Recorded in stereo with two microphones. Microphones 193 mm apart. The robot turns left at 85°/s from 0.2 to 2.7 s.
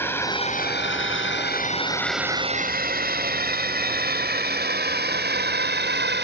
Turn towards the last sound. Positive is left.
turn(degrees=-60)  # may be behind; listen again after turning